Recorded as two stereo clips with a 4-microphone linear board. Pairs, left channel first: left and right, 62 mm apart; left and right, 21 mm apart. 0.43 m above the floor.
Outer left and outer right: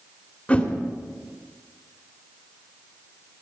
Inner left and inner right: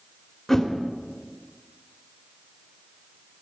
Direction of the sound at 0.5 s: 20° left (ahead or behind).